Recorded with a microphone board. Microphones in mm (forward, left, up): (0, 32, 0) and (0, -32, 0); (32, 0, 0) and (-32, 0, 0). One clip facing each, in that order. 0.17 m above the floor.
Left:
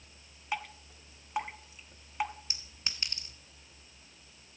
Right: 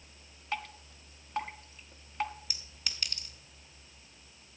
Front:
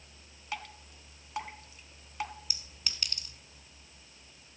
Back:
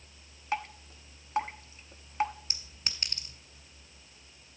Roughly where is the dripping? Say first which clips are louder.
Left 1 dB, back 7 dB; behind.